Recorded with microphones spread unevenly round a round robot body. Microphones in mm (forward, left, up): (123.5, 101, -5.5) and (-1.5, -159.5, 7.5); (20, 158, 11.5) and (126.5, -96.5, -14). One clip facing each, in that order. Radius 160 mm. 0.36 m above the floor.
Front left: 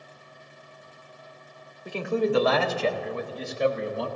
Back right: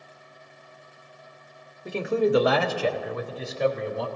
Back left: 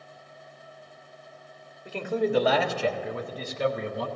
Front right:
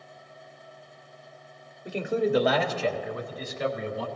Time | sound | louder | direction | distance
1.9 | a man speaking | back right 2 dB, front right 1 dB | 80° right | 1.0 m